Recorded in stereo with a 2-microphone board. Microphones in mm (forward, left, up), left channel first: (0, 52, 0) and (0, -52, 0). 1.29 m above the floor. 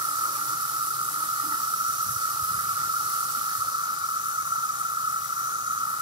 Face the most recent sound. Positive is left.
turn(degrees=-50)  # may be behind; listen again after turning